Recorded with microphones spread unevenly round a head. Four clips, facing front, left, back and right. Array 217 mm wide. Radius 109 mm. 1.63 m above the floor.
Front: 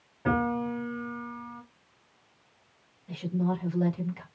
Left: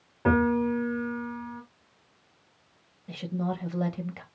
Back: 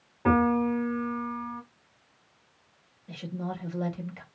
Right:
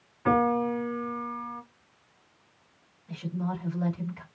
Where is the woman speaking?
95° left, 2 m.